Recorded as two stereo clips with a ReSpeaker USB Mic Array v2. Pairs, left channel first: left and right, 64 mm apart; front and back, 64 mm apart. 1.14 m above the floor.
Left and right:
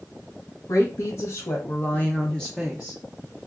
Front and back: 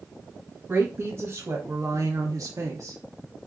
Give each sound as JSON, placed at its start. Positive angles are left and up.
{"t": 0.7, "sound": "a woman speaking", "azimuth_deg": 125, "distance_m": 1.2}